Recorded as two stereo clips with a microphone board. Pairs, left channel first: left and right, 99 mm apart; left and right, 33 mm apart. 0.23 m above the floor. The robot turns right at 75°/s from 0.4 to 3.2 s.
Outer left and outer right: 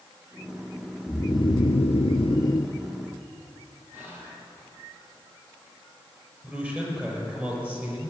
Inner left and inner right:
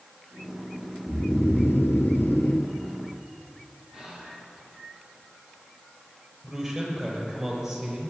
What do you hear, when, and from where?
1.1 s snoring: 25° left, 0.7 m; by 2.8 s 155° left, 0.7 m
3.9 s whispering: 20° right (ahead or behind), 4 m
6.4 s a man speaking: 15° right (ahead or behind), 5 m